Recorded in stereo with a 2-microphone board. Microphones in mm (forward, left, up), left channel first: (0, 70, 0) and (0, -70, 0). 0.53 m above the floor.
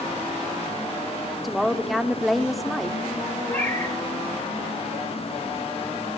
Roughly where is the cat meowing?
Left.